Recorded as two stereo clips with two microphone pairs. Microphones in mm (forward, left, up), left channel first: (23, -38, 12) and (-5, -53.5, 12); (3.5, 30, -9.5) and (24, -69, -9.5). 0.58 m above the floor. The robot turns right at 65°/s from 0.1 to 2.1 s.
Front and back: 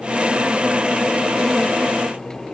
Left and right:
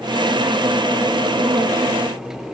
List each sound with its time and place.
Only background noise.